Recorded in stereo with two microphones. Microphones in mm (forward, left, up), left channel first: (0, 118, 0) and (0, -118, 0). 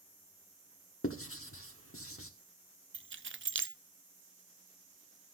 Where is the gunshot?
I don't hear a gunshot.